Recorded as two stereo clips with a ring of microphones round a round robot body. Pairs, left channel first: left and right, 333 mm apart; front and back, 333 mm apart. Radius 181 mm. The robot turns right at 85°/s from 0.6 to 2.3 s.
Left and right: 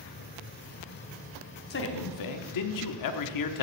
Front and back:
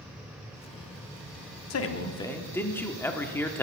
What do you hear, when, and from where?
1.7 s a man speaking: 30° left, 0.9 m; by 3.6 s 85° left, 0.9 m